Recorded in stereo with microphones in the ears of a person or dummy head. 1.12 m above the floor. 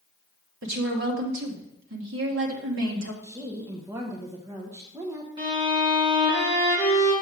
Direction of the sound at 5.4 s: 25° right (ahead or behind).